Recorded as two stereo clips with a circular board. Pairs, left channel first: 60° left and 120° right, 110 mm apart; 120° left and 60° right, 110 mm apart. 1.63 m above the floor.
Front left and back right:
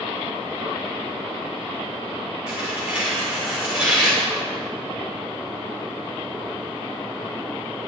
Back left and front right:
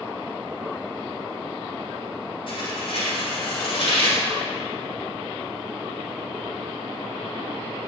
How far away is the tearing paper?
About 5.5 m.